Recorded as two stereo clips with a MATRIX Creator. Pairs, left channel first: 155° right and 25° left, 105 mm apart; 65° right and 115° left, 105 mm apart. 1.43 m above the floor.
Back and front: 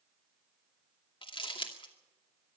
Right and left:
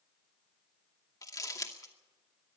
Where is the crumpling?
120° right, 2.5 m.